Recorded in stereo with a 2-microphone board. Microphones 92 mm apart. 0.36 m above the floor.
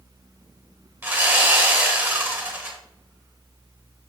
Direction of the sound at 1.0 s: 20° right (ahead or behind).